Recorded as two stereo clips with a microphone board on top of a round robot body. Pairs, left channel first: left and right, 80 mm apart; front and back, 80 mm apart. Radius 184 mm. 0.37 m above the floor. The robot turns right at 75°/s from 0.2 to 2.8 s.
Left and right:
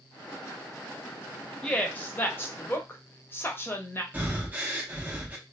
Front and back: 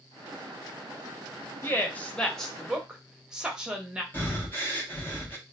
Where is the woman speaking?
20° left, 0.9 m; by 4.0 s 110° left, 0.9 m.